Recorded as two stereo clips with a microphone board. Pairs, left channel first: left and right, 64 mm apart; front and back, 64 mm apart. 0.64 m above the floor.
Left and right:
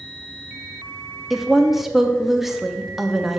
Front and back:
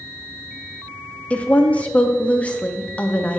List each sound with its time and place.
1.3 s a woman speaking: 15° right, 0.6 m